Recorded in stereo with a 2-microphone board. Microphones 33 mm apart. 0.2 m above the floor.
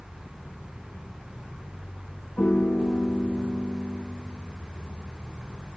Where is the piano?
75° left (ahead or behind), 3.5 m.